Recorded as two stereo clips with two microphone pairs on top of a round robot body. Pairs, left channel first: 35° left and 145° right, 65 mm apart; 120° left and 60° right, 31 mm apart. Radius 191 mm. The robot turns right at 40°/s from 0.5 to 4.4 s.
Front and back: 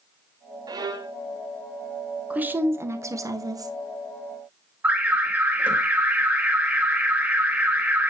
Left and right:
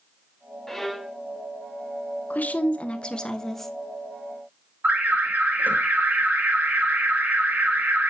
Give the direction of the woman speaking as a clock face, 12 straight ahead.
7 o'clock.